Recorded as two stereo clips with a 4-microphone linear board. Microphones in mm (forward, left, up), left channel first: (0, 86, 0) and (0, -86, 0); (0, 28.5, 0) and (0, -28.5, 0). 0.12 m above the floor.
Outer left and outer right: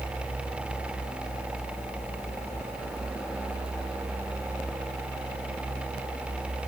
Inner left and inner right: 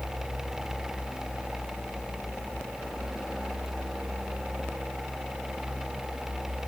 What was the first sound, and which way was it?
Only background noise.